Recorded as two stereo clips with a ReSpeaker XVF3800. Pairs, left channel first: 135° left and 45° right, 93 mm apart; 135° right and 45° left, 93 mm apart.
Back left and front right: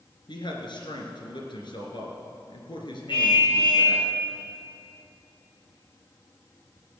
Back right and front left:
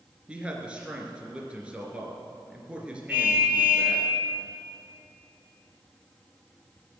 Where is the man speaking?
120° left, 2.5 m.